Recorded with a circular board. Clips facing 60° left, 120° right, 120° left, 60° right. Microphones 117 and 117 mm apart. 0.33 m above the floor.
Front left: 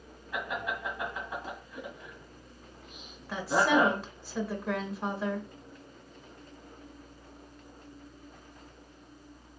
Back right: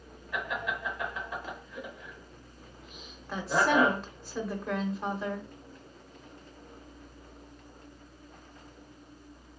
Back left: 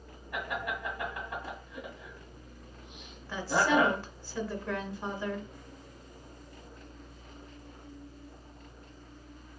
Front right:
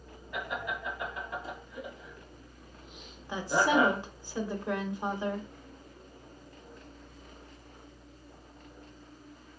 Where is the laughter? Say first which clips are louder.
Even, back left 1 dB; 125° left, 2.5 m.